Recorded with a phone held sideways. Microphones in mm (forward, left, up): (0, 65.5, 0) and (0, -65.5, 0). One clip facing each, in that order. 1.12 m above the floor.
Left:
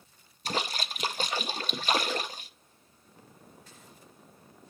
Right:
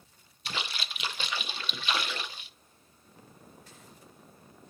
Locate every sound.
0.5 s a splash: 40° left (ahead or behind), 0.6 m